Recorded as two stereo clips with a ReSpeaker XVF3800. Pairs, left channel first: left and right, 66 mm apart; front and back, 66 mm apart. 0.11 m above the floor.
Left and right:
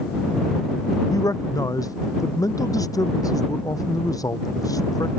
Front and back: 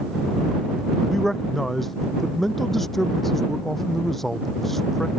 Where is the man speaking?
85° left.